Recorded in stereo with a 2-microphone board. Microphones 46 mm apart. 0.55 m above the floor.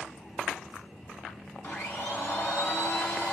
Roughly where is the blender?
Left.